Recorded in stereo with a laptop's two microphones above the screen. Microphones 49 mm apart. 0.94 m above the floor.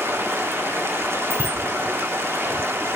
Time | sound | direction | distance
0.0 | running water | 60° right (ahead or behind) | 1.5 m
1.3 | a bicycle bell | 70° right (ahead or behind) | 4.5 m